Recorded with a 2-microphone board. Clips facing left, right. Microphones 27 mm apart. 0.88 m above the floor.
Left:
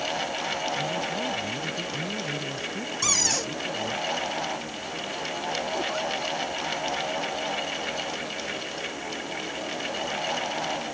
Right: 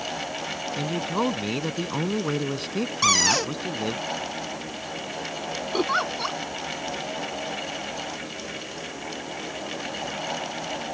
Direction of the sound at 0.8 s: 70° right (ahead or behind).